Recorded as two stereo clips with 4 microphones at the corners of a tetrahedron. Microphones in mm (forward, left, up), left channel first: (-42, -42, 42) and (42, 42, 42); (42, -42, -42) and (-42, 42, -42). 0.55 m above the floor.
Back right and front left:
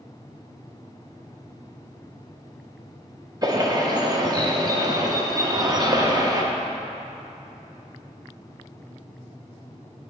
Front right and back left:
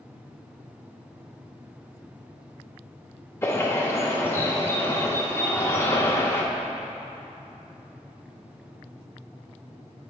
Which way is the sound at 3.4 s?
10° left.